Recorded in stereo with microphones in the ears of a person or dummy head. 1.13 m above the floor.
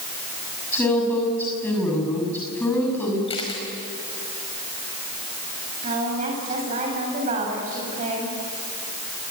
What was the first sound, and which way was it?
A woman speaking, 10° left (ahead or behind).